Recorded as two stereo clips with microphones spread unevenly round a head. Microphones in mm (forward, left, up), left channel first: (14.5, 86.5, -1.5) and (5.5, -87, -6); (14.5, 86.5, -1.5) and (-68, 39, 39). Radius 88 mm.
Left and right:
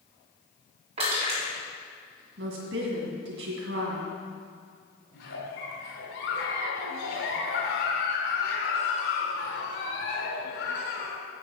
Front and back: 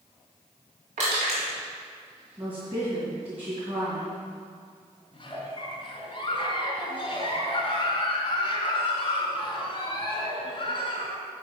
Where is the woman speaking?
90° right, 1.9 m.